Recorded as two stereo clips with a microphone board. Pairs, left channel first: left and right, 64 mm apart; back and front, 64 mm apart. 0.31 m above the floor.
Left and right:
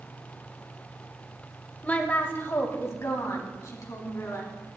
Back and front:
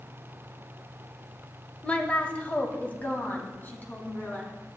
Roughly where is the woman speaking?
Behind left.